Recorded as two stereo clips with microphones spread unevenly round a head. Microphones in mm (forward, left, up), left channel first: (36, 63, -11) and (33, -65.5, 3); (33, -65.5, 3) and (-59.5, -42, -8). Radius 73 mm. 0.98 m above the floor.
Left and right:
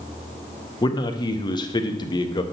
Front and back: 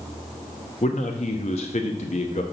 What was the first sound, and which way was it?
A man speaking, 35° left.